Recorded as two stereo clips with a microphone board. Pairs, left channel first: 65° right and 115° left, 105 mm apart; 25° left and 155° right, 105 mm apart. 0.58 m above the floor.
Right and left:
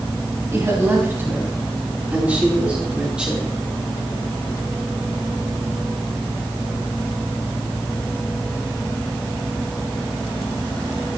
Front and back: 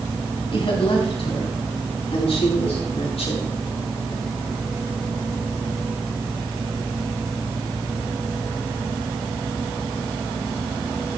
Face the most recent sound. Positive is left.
turn(degrees=30)